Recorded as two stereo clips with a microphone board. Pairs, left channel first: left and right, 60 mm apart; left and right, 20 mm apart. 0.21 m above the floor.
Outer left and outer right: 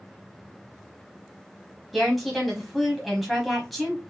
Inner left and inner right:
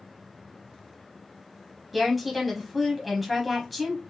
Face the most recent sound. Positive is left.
turn(degrees=0)  # may be behind; listen again after turning